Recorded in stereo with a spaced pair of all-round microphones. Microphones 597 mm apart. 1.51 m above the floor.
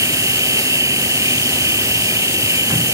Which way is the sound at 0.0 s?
5° right (ahead or behind).